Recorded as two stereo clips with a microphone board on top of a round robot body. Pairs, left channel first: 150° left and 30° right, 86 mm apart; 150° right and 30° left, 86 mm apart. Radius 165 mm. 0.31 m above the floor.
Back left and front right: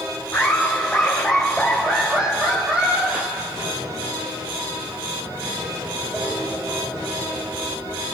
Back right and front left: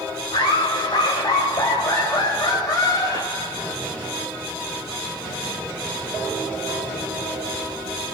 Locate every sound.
0.3 s laughter: 140° right, 3 m; by 3.8 s 85° right, 3 m